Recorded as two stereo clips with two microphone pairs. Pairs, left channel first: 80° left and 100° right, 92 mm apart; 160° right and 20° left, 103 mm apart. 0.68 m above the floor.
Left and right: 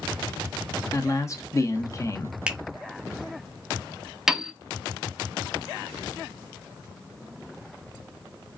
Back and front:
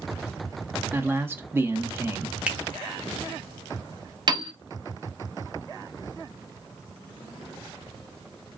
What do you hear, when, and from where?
0.9 s a man speaking: 75° left, 0.6 m
2.5 s a finger snap: 45° right, 0.5 m
4.3 s a piano: 15° right, 0.8 m